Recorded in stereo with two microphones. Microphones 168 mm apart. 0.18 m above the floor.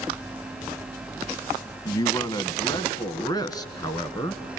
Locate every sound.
1.9 s a man speaking: 25° left (ahead or behind), 1.3 m; by 4.4 s 20° left (ahead or behind), 2.5 m